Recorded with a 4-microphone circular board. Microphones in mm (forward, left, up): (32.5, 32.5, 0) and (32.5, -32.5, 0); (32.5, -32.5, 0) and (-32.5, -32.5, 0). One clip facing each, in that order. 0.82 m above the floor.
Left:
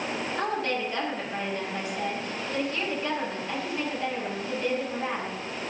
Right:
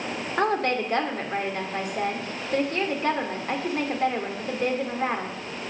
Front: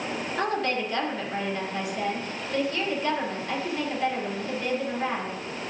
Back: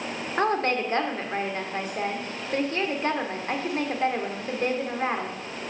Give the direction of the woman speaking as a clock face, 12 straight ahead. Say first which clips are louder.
Right 7 dB, back 4 dB; 4 o'clock.